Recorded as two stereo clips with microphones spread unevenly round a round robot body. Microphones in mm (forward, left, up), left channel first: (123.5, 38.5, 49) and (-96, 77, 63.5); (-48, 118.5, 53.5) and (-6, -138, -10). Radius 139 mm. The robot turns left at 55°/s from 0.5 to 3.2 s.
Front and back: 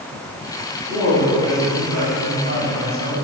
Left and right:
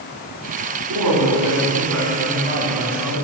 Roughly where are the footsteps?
I don't hear footsteps.